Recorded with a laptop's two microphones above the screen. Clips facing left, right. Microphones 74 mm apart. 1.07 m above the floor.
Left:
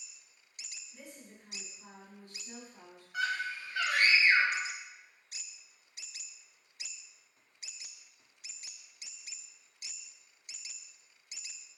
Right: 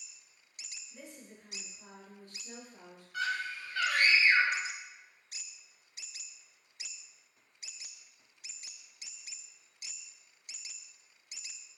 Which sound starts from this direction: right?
A woman speaking, at 0.9 s.